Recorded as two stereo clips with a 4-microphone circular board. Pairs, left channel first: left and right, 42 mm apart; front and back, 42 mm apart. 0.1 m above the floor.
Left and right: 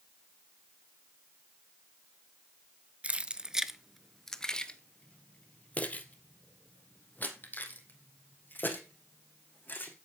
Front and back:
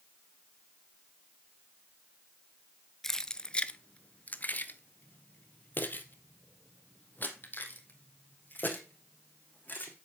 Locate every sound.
3.0 s keys jangling: 70° right, 0.8 m; by 9.9 s 45° left, 4 m